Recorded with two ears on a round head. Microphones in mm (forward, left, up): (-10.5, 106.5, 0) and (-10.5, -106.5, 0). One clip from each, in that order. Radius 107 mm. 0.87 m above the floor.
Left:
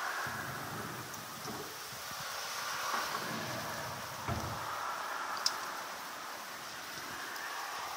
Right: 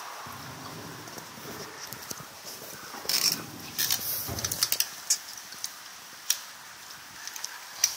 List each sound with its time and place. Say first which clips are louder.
0.3 s a drawer: left 1 dB; 80° left, 4 m